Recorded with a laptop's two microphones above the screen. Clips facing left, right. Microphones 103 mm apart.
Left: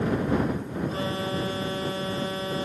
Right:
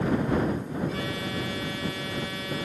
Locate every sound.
0.9 s an alarm: 30° left (ahead or behind)